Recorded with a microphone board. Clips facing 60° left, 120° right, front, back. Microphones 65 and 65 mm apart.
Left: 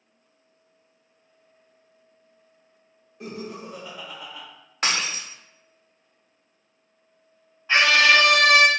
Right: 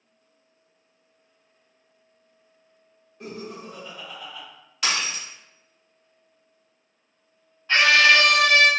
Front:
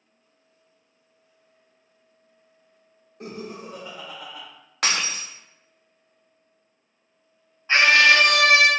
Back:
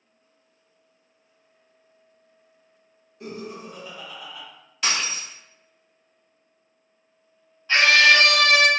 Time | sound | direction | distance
3.2 | laughter | 20° right | 2.0 m
4.8 | breaking glass | 15° left | 0.7 m
7.7 | a scream | straight ahead | 0.6 m